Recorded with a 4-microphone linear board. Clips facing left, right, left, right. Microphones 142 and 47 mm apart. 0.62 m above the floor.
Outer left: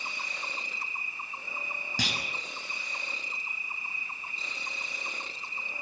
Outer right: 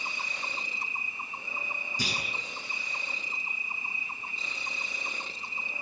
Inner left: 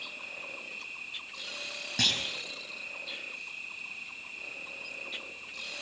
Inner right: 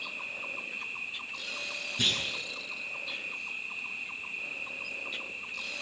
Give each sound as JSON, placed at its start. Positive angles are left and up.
{"t": 0.0, "sound": "an insect", "side_deg": -20, "distance_m": 3.0}
{"t": 2.0, "sound": "a clunk", "side_deg": 80, "distance_m": 5.5}